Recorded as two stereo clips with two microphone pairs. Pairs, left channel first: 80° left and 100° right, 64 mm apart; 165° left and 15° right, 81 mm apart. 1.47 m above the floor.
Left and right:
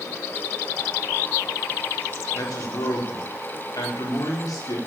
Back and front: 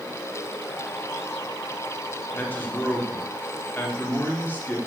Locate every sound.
2.3 s a man speaking: 95° left, 4.5 m